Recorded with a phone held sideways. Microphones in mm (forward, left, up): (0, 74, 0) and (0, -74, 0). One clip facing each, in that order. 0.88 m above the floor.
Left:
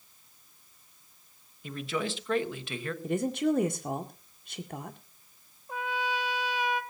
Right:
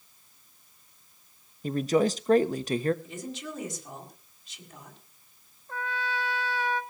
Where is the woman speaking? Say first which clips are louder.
Left 11 dB; 60° left (ahead or behind), 1.8 m.